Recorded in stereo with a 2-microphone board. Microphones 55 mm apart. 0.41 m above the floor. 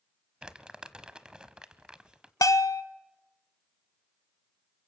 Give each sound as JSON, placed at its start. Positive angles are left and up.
{"t": 0.4, "sound": "crumpling", "side_deg": -20, "distance_m": 1.0}
{"t": 2.4, "sound": "a bell", "side_deg": 85, "distance_m": 0.9}